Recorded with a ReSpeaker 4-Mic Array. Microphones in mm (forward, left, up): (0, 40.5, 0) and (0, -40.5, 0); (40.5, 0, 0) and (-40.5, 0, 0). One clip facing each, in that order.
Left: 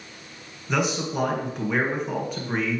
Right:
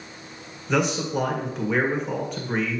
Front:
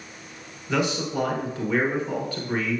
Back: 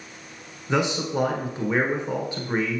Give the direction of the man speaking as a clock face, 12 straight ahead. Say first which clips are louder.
Right 2 dB, back 1 dB; 6 o'clock.